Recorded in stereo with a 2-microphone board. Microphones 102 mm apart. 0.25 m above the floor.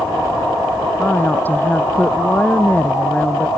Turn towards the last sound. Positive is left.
turn(degrees=15)  # may be behind; listen again after turning